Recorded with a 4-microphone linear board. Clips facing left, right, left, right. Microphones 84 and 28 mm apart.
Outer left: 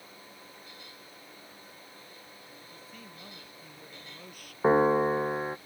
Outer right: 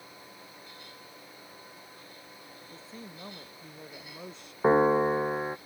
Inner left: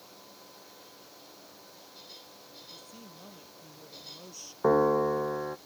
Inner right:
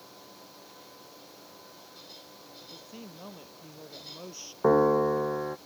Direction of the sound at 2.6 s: 30° right (ahead or behind).